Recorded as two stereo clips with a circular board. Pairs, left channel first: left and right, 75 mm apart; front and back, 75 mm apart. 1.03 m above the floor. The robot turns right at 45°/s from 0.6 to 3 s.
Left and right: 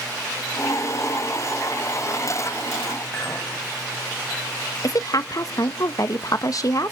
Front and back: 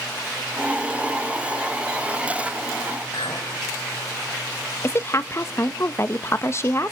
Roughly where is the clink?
Ahead.